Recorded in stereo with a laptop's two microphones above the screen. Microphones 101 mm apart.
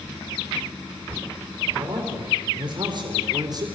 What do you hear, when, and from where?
1.7 s a man speaking: 60° right (ahead or behind), 4 m; by 3.7 s 40° right (ahead or behind), 3.5 m